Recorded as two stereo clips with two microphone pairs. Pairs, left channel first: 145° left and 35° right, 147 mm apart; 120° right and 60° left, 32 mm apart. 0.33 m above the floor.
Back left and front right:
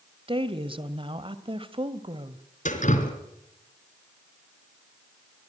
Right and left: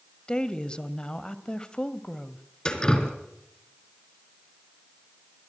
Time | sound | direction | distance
0.3 | a woman speaking | 75° right | 1.9 m
2.6 | dripping | 175° left | 4 m